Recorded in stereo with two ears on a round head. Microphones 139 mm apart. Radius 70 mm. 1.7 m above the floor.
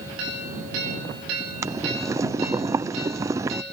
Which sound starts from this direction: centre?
Boiling, at 1.6 s.